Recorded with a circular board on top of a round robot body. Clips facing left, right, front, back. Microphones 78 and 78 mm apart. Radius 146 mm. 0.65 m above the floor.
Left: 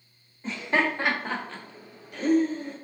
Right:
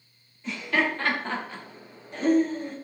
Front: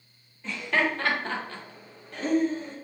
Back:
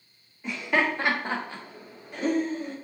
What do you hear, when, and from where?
0.4 s laughter: 110° left, 1.4 m; by 2.8 s 105° right, 1.5 m